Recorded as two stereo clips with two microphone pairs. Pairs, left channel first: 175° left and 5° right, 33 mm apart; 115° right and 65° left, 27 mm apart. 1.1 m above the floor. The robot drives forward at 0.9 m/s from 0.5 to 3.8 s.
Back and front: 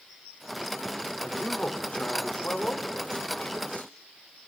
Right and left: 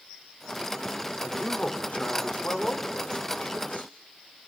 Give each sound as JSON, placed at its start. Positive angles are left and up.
{"t": 1.2, "sound": "a man speaking", "azimuth_deg": -140, "distance_m": 3.5}